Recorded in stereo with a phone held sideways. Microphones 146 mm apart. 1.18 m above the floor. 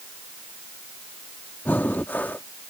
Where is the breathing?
15° left (ahead or behind).